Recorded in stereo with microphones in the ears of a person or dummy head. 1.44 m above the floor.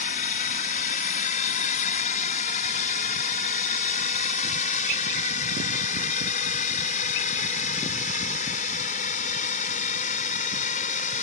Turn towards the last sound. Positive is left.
turn(degrees=45)  # may be behind; listen again after turning